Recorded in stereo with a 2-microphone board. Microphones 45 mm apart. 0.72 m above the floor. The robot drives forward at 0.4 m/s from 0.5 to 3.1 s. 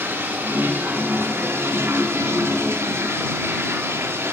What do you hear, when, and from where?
0.0 s running water: 50° right (ahead or behind), 1.5 m; by 4.3 s 65° right (ahead or behind), 1.3 m